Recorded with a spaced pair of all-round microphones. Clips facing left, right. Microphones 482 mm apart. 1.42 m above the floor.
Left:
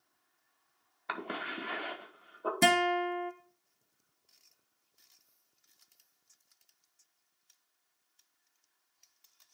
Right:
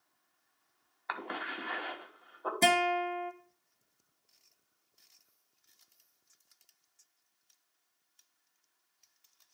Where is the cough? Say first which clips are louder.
Left 2 dB; 50° left (ahead or behind), 1.5 m.